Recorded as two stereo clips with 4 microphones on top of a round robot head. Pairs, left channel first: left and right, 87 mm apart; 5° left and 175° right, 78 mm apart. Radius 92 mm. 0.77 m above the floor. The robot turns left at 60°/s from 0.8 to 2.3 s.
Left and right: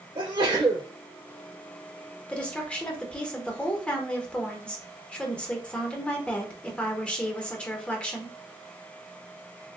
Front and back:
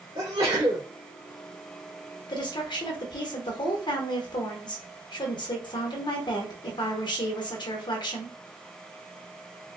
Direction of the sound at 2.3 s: 10° left.